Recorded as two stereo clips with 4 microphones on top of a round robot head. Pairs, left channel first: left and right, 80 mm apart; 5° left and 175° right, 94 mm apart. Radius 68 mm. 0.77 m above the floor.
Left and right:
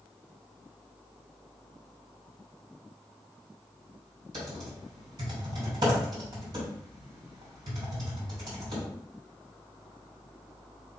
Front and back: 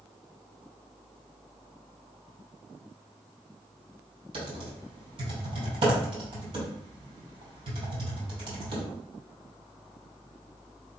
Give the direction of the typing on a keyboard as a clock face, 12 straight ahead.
5 o'clock.